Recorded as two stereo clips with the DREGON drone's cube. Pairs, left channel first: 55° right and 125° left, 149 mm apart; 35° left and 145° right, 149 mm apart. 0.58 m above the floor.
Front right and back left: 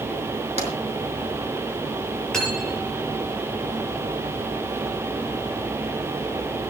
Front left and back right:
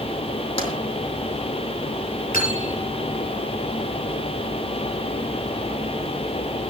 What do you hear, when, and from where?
0.6 s tapping: 85° left, 5 m
2.3 s cutlery clinking: 30° left, 8.5 m